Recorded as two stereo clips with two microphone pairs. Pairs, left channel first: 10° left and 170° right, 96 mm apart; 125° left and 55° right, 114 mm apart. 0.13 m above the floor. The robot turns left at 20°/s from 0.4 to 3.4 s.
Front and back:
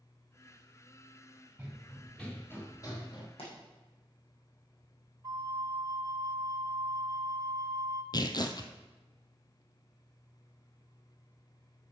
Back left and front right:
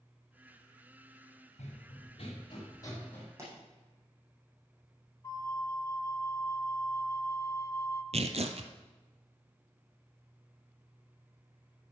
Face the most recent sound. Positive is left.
turn(degrees=-30)